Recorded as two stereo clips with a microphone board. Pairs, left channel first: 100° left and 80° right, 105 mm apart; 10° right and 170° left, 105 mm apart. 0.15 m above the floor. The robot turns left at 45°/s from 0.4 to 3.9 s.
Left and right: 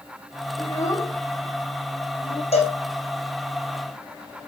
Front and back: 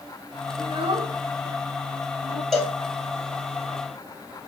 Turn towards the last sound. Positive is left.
turn(degrees=15)